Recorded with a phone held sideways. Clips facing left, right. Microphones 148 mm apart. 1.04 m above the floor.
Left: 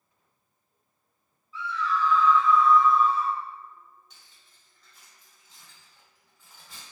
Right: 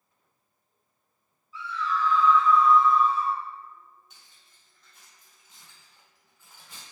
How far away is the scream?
About 1.5 m.